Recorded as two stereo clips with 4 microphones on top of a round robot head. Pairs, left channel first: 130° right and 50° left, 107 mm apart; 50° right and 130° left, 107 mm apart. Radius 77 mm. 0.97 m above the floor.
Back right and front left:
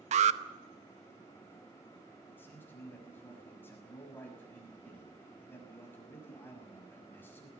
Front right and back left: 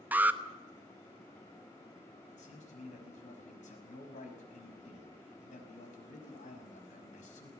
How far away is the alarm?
About 0.9 m.